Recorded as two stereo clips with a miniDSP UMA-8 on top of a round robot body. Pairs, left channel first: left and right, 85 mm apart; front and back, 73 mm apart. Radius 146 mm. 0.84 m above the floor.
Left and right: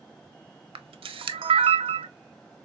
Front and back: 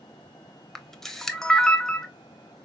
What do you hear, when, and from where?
0.8 s a camera shutter: 85° right, 0.5 m